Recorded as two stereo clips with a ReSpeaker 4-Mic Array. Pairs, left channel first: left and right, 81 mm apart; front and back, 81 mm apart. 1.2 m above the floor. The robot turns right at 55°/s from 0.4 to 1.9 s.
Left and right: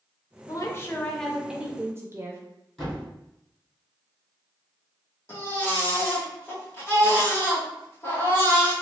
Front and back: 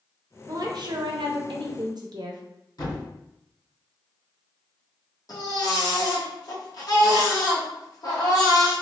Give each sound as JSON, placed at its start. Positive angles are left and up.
{"t": 0.5, "sound": "a woman speaking", "azimuth_deg": 130, "distance_m": 0.6}
{"t": 2.8, "sound": "a thud", "azimuth_deg": 5, "distance_m": 1.7}
{"t": 5.3, "sound": "a baby crying", "azimuth_deg": 30, "distance_m": 0.8}